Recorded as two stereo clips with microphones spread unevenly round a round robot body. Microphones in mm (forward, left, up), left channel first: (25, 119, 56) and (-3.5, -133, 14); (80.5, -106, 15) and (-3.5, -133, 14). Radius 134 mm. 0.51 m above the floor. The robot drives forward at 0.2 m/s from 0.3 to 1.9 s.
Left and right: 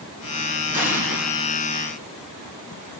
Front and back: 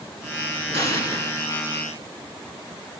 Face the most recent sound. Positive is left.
turn(degrees=180)